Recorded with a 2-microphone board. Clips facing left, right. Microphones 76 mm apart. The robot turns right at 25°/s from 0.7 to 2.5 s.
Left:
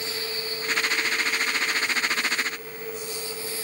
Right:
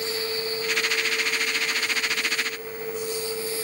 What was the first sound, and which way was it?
Only background noise.